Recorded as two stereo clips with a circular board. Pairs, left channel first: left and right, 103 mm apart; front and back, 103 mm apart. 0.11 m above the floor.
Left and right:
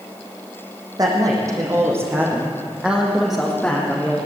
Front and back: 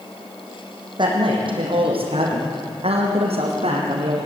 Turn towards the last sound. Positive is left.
turn(degrees=165)